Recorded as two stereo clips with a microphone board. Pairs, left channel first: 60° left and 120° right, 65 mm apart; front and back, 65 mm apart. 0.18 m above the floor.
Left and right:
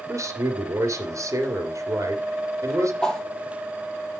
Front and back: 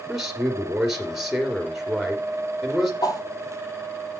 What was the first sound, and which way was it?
A man speaking, 100° right.